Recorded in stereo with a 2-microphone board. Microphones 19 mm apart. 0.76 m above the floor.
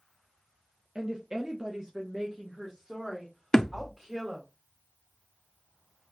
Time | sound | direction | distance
0.9 | a woman speaking | 40° right (ahead or behind) | 0.8 m
3.5 | a thud | 25° left (ahead or behind) | 0.5 m